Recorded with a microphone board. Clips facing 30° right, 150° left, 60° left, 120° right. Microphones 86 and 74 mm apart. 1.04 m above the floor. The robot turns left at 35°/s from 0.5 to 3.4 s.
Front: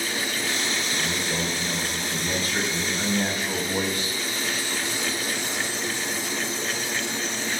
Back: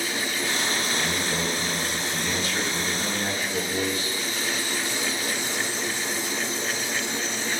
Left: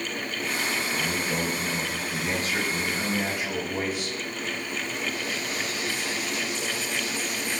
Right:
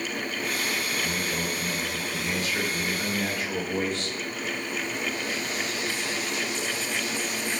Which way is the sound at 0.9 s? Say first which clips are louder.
Back 1 dB, left 1 dB; 65° left.